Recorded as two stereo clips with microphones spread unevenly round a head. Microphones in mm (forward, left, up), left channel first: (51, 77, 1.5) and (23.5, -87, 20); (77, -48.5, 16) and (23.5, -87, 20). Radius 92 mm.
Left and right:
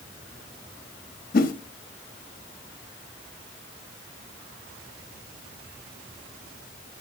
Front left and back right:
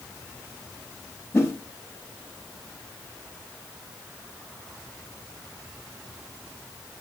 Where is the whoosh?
95° left, 0.7 m.